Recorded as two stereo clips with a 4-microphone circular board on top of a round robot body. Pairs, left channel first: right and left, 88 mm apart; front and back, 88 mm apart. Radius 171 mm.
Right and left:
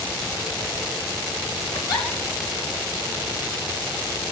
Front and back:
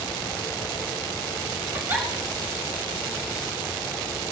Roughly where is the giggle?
Behind right.